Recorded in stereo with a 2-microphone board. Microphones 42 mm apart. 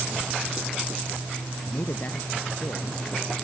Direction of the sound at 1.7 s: 65° left (ahead or behind).